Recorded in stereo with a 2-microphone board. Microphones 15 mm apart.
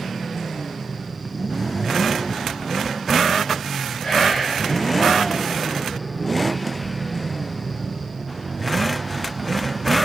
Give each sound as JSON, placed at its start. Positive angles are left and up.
{"t": 4.0, "sound": "whispering", "side_deg": 70, "distance_m": 0.9}